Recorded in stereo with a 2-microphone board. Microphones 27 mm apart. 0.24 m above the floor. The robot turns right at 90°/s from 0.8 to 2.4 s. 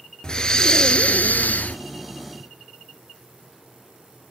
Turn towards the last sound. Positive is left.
turn(degrees=175)